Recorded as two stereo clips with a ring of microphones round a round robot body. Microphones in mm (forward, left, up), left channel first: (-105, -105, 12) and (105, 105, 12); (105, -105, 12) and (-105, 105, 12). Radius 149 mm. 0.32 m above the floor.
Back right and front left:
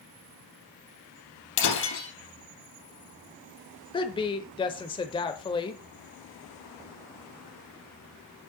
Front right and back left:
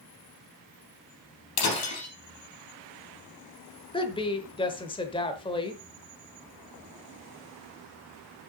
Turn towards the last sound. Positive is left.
turn(degrees=-90)